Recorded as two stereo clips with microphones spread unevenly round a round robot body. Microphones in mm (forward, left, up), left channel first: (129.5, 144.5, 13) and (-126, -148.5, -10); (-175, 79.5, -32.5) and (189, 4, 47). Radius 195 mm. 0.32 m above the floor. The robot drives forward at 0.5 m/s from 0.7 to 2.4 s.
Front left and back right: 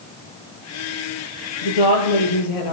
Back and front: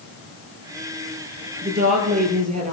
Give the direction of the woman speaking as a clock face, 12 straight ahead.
10 o'clock.